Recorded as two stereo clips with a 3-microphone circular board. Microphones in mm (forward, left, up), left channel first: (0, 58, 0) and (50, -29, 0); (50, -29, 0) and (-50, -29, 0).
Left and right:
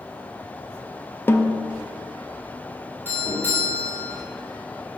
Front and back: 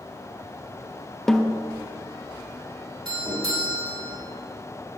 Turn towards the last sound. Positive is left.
turn(degrees=180)